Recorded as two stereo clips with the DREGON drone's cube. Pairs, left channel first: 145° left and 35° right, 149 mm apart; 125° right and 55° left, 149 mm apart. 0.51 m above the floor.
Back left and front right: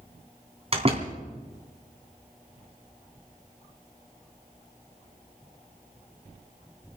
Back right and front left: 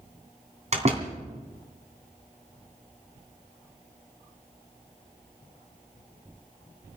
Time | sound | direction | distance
0.7 | a door slam | 15° left | 2.5 m